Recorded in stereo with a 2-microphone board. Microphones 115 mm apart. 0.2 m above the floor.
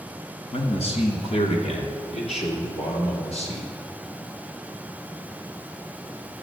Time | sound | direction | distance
0.5 | a man speaking | 60° left (ahead or behind) | 2 m